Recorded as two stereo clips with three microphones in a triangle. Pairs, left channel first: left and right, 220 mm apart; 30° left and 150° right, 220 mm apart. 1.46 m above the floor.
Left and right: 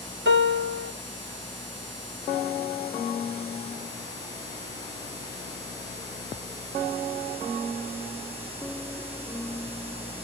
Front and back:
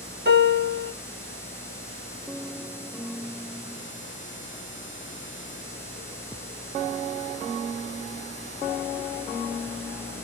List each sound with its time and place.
0.2 s a piano: 115° right, 1.1 m